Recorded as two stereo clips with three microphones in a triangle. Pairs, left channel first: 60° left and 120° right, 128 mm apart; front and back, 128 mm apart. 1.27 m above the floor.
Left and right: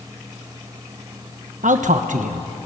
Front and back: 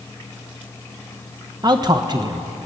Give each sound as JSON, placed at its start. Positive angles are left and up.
{"t": 1.6, "sound": "a man speaking", "azimuth_deg": -125, "distance_m": 1.1}